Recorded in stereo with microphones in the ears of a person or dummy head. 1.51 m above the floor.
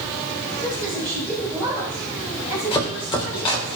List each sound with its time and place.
0.6 s a woman speaking: 10° left (ahead or behind), 7 m; by 3.7 s centre (ahead or behind), 9 m
2.7 s chopping: 25° left (ahead or behind), 2.5 m